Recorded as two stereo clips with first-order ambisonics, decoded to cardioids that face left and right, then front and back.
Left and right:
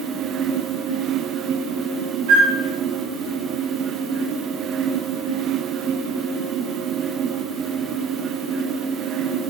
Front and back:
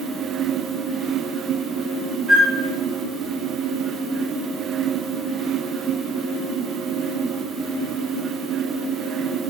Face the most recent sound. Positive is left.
turn(degrees=-100)